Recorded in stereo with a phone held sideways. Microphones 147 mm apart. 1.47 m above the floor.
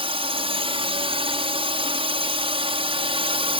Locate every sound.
0.0 s a drone: 40° right (ahead or behind)